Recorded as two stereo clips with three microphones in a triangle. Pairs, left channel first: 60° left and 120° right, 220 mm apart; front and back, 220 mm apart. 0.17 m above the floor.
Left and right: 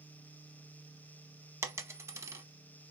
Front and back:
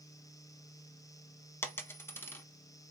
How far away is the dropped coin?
About 0.6 m.